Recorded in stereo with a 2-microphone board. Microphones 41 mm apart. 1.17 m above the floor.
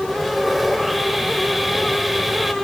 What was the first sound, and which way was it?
Sawing, 5° right (ahead or behind).